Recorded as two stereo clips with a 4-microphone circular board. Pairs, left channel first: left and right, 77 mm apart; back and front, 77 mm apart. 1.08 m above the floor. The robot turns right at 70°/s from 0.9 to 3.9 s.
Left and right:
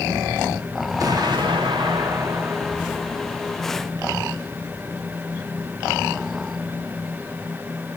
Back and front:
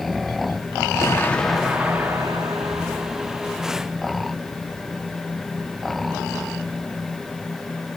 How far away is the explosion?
About 1.8 m.